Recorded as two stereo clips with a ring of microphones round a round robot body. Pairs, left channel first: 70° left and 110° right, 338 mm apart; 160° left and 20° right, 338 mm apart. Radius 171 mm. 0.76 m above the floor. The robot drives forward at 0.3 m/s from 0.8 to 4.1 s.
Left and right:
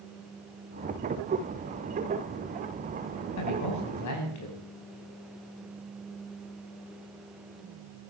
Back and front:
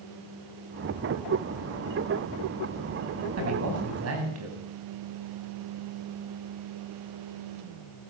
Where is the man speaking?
25° left, 5.5 m.